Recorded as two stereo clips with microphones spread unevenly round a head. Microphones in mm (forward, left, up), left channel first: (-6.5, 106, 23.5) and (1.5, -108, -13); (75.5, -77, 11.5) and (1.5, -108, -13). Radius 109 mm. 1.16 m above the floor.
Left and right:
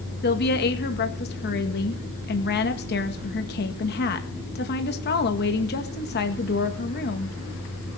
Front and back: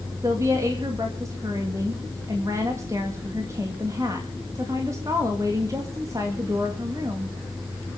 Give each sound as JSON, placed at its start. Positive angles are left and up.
{"t": 0.2, "sound": "a woman speaking", "azimuth_deg": 140, "distance_m": 1.9}